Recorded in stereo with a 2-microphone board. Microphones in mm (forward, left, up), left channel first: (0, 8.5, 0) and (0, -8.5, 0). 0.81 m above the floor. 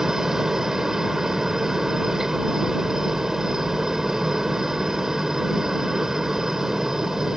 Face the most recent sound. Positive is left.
turn(degrees=-30)  # may be behind; listen again after turning